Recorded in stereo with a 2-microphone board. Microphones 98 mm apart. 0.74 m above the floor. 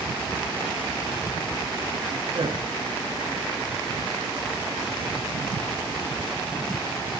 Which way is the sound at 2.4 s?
45° right (ahead or behind).